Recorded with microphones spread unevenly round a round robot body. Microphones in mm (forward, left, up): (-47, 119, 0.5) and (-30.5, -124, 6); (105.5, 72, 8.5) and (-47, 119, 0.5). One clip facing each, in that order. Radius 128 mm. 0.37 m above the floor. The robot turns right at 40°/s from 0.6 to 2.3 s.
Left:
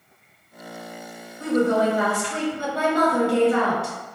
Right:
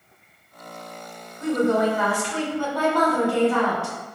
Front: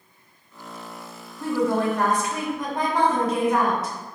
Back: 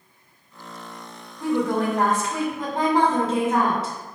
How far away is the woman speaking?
About 1.3 m.